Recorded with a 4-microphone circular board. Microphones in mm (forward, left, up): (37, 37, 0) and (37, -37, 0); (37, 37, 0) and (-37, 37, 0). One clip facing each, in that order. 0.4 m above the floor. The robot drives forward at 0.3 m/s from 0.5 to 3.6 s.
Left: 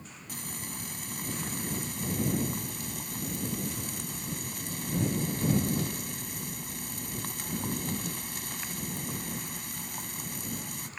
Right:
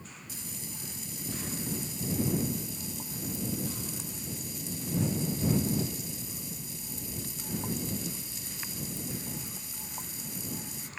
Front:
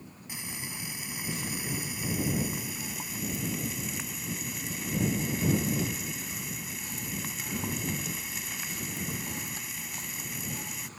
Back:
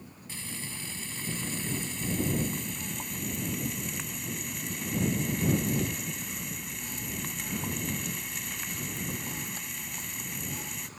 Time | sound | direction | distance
0.3 | frying | 75° left | ?